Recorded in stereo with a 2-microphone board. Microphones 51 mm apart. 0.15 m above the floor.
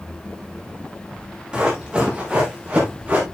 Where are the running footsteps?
20° right (ahead or behind), 6 m; by 3.2 s 30° right (ahead or behind), 5.5 m.